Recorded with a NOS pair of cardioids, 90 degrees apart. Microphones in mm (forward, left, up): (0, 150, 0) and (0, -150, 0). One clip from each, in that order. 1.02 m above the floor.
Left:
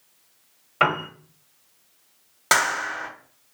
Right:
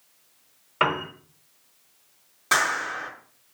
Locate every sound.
0.8 s a piano: 5° left, 1.0 m
2.5 s a clap: 65° left, 1.3 m